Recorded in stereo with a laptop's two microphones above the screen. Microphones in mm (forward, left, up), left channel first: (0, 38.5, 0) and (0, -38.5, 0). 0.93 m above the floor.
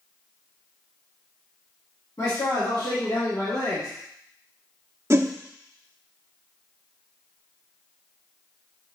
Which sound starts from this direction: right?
A whoosh, at 5.1 s.